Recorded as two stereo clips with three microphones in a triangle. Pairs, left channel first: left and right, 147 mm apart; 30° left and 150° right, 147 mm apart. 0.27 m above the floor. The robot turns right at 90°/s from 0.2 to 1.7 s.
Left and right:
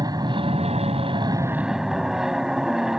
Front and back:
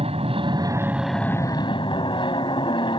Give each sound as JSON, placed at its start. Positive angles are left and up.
{"t": 0.0, "sound": "an aircraft", "azimuth_deg": -140}